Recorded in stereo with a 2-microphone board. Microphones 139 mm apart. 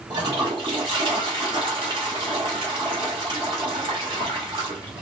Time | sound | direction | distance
0.1 | a toilet flushing | 35° right (ahead or behind) | 1.4 m